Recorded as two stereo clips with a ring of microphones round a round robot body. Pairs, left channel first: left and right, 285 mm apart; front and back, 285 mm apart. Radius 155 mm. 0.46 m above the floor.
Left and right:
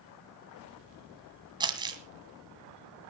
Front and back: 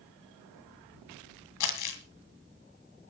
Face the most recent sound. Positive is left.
turn(degrees=-15)